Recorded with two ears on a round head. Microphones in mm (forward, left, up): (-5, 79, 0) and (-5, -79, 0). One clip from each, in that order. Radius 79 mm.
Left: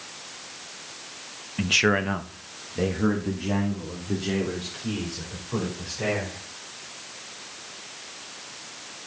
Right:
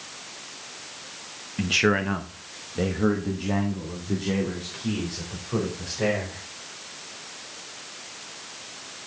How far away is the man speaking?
About 1.0 m.